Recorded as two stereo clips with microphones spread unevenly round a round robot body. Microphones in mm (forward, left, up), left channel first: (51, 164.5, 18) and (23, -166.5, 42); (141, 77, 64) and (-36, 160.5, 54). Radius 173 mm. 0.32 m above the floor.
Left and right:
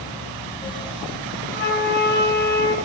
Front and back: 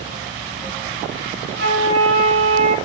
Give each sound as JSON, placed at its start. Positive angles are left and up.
{"t": 1.5, "sound": "a flute", "azimuth_deg": 145, "distance_m": 4.5}